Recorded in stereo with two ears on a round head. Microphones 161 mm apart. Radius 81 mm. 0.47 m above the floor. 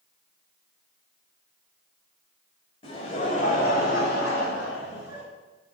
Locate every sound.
2.8 s laughter: 30° left (ahead or behind), 2.5 m; by 5.2 s 65° left (ahead or behind), 3.5 m